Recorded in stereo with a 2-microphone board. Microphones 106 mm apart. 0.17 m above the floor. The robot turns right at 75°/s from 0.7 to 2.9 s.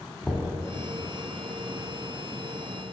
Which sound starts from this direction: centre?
Knocking, at 0.2 s.